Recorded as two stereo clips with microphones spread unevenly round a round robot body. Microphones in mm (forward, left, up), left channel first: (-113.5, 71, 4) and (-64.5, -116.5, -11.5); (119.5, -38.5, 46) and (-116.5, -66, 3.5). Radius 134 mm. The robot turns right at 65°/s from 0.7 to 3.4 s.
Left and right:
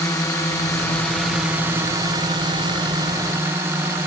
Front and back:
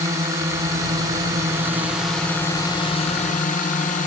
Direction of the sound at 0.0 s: 165° left.